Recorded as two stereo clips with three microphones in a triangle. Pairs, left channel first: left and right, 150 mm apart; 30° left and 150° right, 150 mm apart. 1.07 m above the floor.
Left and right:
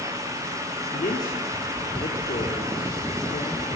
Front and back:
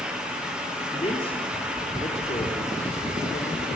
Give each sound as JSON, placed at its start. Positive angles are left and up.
{"t": 0.9, "sound": "a man speaking", "azimuth_deg": 80, "distance_m": 3.5}